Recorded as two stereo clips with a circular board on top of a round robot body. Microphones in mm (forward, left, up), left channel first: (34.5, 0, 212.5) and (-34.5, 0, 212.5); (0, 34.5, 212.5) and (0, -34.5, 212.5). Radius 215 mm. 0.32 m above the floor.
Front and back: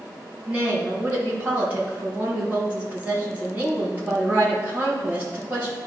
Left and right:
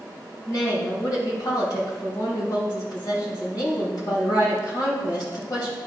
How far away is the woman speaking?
About 3.5 m.